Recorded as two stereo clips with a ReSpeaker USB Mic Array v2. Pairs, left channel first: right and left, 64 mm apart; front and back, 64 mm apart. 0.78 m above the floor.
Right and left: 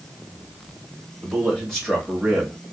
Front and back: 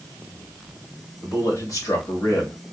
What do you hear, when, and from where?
1.2 s a man speaking: 15° right, 1.5 m; by 2.6 s 10° left, 1.0 m